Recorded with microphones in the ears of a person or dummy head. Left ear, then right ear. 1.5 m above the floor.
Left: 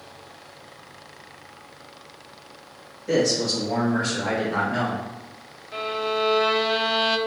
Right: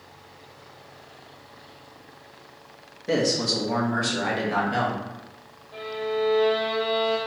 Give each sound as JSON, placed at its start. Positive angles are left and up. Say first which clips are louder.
{"t": 3.1, "sound": "a man speaking", "louder": "left 1 dB", "side_deg": -15, "distance_m": 1.3}
{"t": 5.7, "sound": "a violin", "louder": "left 3 dB", "side_deg": 60, "distance_m": 0.6}